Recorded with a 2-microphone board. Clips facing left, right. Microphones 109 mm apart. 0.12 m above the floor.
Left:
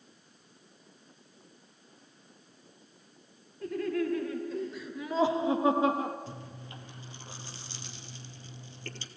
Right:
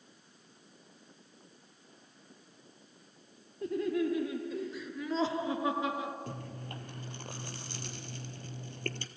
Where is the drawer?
No drawer in this recording.